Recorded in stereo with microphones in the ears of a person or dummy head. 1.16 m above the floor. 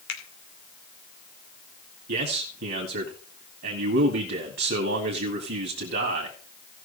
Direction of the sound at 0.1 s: 75° left (ahead or behind).